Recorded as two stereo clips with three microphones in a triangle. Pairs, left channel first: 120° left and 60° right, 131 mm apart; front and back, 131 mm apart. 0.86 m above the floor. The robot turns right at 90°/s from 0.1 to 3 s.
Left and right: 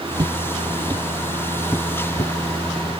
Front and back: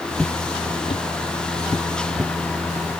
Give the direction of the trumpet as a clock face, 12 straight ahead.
I don't hear a trumpet.